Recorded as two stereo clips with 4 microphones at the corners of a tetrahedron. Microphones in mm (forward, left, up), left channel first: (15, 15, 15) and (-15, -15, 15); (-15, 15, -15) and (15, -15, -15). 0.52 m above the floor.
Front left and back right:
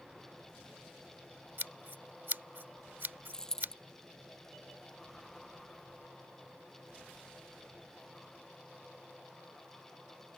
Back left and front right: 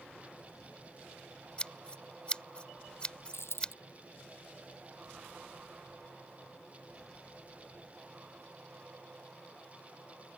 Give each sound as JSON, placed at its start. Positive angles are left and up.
{"t": 1.6, "sound": "scissors", "azimuth_deg": -165}
{"t": 3.3, "sound": "a dropped coin", "azimuth_deg": 120}